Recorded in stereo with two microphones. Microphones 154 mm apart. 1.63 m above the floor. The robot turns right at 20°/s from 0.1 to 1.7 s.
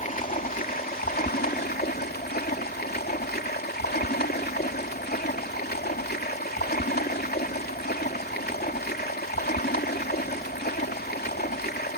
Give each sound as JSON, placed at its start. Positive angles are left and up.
{"t": 0.0, "sound": "running water", "azimuth_deg": 55}